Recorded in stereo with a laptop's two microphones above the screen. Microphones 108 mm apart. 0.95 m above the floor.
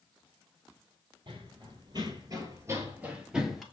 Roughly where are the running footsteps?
Right.